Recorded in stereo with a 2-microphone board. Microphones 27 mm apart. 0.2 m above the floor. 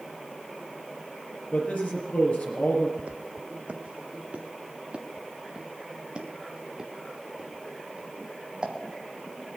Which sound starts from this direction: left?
A man speaking, at 1.5 s.